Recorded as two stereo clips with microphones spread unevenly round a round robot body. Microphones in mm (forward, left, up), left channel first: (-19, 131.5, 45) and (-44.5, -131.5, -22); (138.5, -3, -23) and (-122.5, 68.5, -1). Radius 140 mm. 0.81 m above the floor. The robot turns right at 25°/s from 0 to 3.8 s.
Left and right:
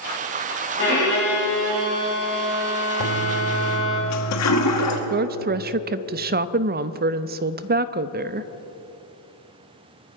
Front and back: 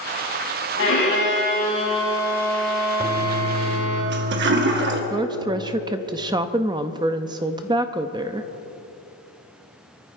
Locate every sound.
0.8 s a violin: 25° left, 5 m; by 4.0 s 100° left, 5 m
3.0 s a toilet flushing: 95° left, 1.5 m; by 5.0 s 115° left, 1.5 m
5.1 s a woman speaking: 120° right, 0.6 m